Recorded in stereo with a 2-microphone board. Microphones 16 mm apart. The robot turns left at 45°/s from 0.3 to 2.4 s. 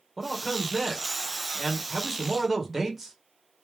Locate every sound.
0.2 s a man speaking: 5° right (ahead or behind), 1.4 m; by 3.1 s 25° right (ahead or behind), 1.4 m